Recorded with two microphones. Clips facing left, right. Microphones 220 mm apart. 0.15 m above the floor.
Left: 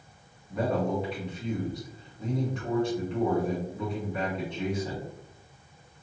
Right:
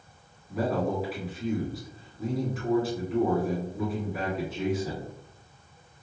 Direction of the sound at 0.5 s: 5° right (ahead or behind).